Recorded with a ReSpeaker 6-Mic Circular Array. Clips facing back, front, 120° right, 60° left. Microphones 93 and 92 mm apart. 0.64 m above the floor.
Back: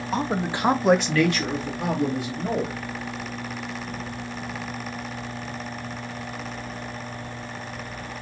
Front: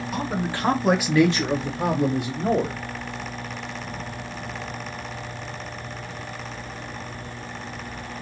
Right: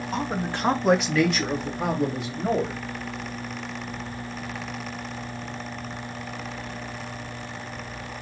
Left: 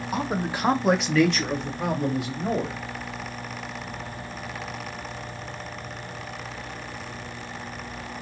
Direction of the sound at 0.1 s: 140° left.